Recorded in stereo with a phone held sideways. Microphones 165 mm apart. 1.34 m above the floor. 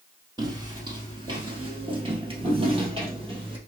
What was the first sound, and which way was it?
Footsteps, 25° right (ahead or behind).